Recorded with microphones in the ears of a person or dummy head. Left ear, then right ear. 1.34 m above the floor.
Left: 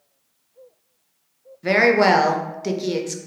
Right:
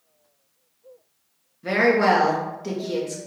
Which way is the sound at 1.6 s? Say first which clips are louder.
Left 3 dB; 30° left (ahead or behind).